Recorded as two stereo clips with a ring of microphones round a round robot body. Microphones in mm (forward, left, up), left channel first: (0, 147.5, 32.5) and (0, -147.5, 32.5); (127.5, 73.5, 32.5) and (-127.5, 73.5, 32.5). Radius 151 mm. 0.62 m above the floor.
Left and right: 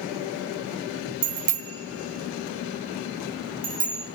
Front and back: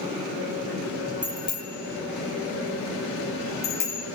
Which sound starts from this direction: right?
A bicycle bell, at 1.2 s.